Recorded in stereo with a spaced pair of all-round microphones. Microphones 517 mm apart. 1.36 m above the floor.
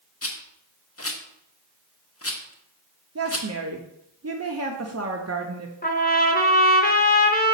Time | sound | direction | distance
0.2 | a rattle | 25° left (ahead or behind) | 0.7 m
3.1 | a woman speaking | 30° right (ahead or behind) | 0.5 m
5.8 | a trumpet | 20° left (ahead or behind) | 0.8 m